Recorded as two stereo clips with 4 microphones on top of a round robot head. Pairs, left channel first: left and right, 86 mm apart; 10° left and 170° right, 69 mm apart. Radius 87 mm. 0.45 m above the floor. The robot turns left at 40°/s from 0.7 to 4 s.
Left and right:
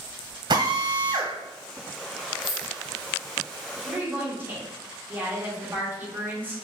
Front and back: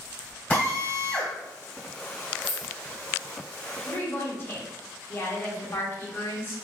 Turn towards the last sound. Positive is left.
turn(degrees=-30)